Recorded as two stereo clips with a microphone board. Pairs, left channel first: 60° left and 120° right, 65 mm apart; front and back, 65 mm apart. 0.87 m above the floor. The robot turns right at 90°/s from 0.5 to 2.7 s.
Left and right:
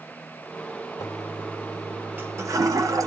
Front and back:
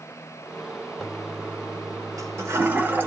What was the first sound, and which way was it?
A toilet flushing, 85° left.